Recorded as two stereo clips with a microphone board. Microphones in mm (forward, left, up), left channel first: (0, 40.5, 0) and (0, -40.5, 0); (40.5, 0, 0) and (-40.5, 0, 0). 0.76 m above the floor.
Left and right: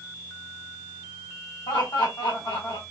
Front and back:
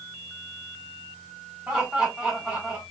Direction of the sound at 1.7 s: 100° left.